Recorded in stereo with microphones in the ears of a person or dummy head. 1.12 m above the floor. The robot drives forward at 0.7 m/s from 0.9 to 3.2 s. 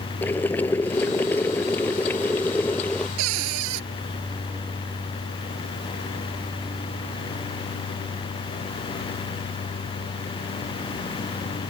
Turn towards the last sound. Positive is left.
turn(degrees=-80)